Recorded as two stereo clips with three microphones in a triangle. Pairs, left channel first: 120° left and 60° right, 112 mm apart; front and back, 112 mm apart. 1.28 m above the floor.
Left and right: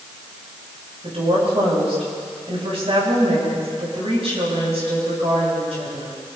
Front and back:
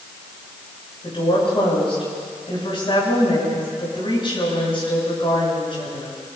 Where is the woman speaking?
35° right, 7 m.